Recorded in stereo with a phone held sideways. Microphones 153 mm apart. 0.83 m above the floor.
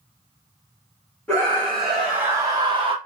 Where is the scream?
10° left (ahead or behind), 1.7 m; by 3.0 s 35° right (ahead or behind), 1.1 m.